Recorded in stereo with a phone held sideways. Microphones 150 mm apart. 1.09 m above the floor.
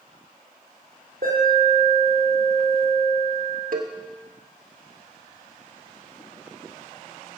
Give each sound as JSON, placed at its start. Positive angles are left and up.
{"t": 1.2, "sound": "an alarm", "side_deg": -75, "distance_m": 5.0}
{"t": 3.7, "sound": "a cowbell", "side_deg": -70, "distance_m": 1.2}